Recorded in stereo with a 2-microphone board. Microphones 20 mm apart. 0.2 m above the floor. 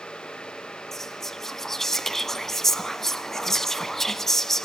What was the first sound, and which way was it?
Whispering, 20° left (ahead or behind).